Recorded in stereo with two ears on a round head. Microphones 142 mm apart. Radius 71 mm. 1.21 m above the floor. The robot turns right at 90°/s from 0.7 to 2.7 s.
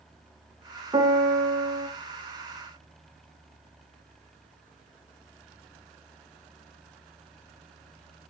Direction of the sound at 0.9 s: 155° right.